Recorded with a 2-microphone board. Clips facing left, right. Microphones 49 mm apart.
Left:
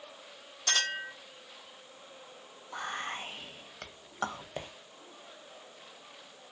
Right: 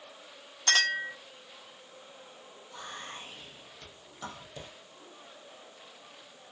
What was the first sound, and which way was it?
A clink, 55° right (ahead or behind).